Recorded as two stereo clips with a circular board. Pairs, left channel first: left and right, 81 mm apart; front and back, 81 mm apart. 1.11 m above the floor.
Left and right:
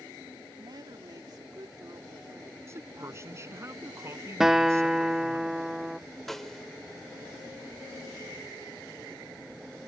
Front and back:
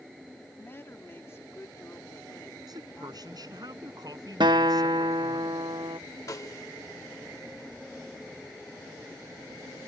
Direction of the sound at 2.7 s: 145° right.